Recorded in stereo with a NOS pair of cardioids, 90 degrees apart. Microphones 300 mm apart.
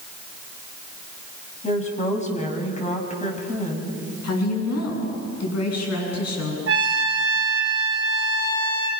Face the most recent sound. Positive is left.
turn(degrees=-45)